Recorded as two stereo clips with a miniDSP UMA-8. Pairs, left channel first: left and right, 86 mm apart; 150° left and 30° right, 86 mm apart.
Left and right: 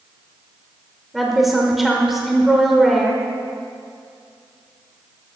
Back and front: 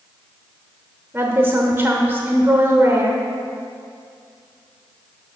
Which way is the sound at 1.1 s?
5° right.